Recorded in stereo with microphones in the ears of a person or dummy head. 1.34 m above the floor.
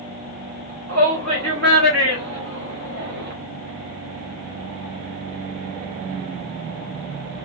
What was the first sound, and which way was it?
A shout, 70° right (ahead or behind).